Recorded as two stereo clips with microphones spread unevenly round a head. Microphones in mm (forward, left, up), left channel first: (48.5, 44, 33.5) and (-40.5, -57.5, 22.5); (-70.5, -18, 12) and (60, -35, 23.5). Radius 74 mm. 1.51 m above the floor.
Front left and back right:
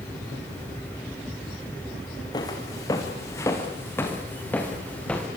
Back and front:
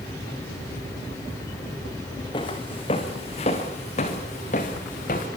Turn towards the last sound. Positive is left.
turn(degrees=130)